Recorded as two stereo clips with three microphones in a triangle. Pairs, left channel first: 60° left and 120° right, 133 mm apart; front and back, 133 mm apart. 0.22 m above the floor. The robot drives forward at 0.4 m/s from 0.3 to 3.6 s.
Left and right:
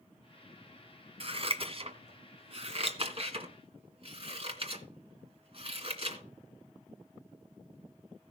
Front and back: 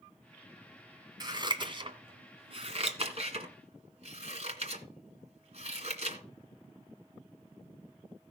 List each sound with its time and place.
1.2 s scissors: 135° right, 1.5 m; by 6.2 s 155° right, 2 m